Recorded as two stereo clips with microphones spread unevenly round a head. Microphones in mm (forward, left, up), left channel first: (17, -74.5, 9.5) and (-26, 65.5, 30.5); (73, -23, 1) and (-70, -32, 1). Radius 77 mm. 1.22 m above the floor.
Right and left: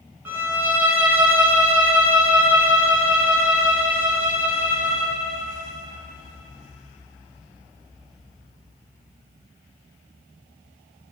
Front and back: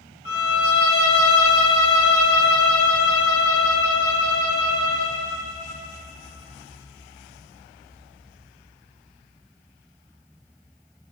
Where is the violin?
30° left, 1.7 m.